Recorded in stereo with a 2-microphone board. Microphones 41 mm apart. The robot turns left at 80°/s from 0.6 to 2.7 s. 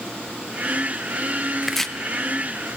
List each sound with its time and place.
1.6 s chopping: 5° right (ahead or behind), 0.6 m; by 1.9 s 15° left (ahead or behind), 0.6 m